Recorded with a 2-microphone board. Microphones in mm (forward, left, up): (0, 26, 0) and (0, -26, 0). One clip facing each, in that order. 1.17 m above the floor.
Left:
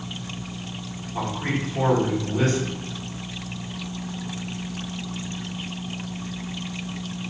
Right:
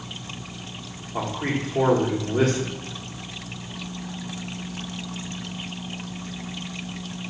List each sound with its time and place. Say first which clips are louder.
1.1 s a man speaking: even; 75° right (ahead or behind), 1.5 m